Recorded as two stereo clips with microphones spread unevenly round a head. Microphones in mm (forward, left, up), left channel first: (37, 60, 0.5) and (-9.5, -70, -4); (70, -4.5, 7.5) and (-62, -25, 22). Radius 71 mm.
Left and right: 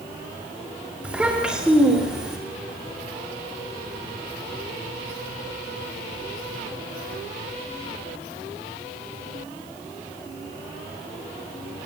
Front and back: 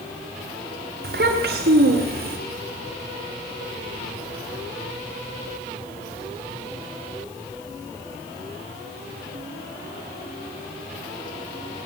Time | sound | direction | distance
1.0 | a child speaking | 165° left | 4 m